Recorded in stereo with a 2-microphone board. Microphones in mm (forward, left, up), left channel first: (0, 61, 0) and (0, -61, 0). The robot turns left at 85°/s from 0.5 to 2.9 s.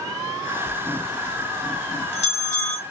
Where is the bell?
70° right (ahead or behind), 1.5 m; by 2.8 s 70° left (ahead or behind), 1.5 m.